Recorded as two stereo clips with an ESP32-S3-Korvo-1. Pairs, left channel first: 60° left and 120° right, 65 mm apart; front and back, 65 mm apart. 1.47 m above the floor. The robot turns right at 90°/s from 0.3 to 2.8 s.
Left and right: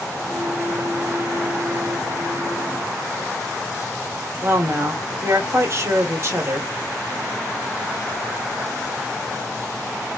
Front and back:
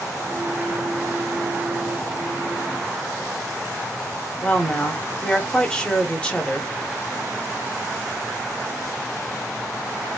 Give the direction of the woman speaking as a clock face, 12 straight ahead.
2 o'clock.